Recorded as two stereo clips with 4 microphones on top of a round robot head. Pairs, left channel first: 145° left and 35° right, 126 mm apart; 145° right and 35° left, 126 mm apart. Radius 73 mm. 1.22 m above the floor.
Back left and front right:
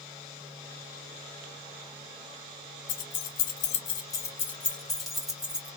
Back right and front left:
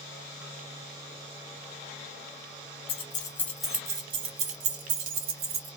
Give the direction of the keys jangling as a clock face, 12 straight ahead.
6 o'clock.